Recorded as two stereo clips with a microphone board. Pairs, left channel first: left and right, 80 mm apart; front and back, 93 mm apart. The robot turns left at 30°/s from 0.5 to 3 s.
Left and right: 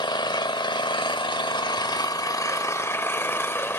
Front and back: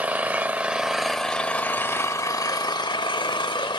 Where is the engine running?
105° left, 0.8 m; by 3.8 s 30° left, 0.8 m.